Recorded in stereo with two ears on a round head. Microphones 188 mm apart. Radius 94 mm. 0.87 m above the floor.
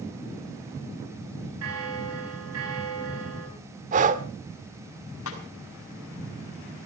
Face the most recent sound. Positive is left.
turn(degrees=70)  # may be behind; listen again after turning